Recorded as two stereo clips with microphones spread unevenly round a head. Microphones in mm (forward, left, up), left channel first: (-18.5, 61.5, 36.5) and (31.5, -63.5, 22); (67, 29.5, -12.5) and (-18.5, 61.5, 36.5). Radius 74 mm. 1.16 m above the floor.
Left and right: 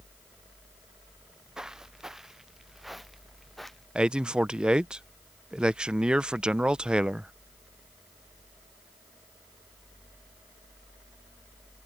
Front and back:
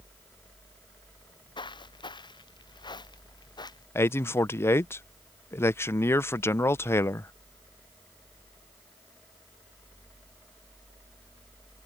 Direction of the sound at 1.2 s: 15° left.